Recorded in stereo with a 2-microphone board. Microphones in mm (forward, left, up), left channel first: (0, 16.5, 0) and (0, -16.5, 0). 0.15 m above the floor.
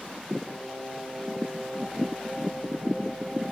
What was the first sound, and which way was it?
Singing, 25° right (ahead or behind).